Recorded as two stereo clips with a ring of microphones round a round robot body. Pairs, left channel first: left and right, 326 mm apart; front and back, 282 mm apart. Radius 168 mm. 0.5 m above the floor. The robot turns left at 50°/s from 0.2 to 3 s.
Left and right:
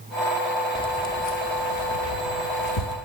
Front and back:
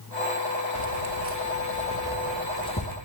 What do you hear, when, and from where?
0.8 s keys jangling: 170° left, 1.4 m; by 3.0 s 60° left, 1.4 m